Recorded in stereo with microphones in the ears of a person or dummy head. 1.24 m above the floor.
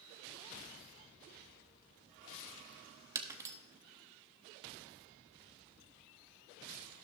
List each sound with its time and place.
3.1 s breaking glass: 20° right (ahead or behind), 1.1 m